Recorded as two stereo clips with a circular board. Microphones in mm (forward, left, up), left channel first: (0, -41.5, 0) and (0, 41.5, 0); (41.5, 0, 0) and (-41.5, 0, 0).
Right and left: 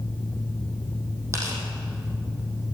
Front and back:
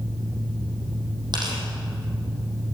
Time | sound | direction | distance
1.3 | tearing paper | 145° left | 5.5 m